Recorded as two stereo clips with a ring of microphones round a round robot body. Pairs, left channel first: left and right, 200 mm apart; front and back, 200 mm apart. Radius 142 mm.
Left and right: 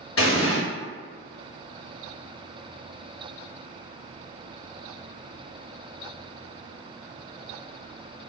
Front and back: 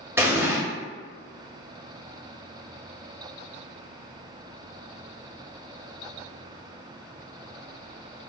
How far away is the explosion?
About 1.2 m.